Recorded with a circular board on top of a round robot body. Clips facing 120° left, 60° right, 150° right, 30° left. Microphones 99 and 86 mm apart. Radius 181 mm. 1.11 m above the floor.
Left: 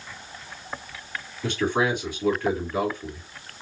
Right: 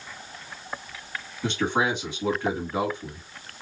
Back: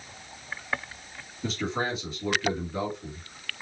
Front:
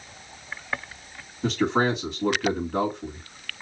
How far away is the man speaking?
About 2.5 m.